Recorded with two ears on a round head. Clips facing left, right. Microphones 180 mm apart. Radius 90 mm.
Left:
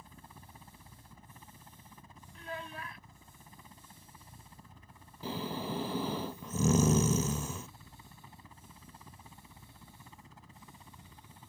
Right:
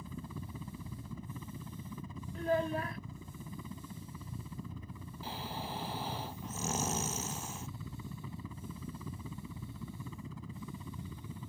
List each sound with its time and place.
0.0 s a helicopter: 70° right (ahead or behind); by 11.5 s 75° right (ahead or behind)
2.4 s a child speaking: 35° right (ahead or behind)
5.2 s snoring: 75° left (ahead or behind)